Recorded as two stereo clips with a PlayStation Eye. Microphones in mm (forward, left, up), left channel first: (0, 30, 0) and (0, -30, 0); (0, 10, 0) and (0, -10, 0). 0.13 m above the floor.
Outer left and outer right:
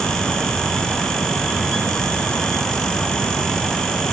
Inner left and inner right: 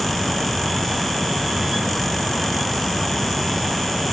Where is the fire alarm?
No fire alarm in this recording.